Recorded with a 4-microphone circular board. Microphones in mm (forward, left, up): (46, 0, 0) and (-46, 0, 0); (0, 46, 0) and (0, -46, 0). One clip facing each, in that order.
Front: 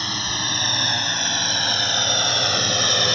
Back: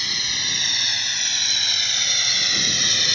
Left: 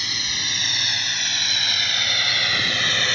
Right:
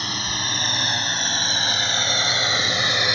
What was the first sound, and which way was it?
A drone, 45° right.